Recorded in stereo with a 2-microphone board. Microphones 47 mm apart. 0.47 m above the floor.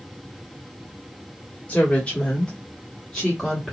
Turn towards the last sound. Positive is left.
turn(degrees=5)  # may be behind; listen again after turning